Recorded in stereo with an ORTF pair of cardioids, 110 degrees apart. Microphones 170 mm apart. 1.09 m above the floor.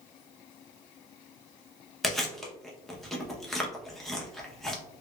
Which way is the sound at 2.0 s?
Straight ahead.